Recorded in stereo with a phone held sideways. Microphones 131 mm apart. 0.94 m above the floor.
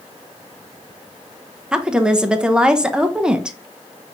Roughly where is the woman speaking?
Centre.